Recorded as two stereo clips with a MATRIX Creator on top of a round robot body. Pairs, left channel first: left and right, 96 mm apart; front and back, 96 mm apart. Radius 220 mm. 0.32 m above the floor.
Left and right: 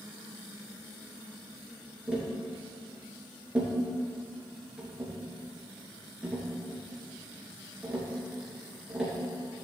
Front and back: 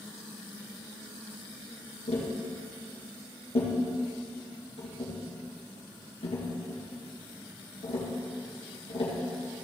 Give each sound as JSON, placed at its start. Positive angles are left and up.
{"t": 2.1, "sound": "tapping", "azimuth_deg": -10, "distance_m": 3.0}